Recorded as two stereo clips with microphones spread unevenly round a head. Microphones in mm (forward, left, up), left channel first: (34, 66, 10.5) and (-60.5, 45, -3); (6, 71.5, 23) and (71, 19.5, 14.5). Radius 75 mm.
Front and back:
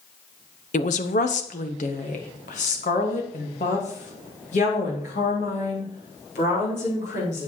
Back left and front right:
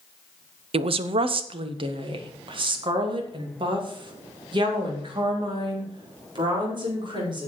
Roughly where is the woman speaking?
Ahead right.